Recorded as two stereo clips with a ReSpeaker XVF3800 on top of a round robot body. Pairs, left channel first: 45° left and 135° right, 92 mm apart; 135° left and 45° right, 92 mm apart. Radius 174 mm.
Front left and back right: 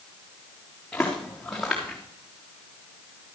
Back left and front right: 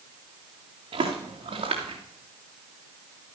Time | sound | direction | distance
0.9 | footsteps | 35° right | 3 m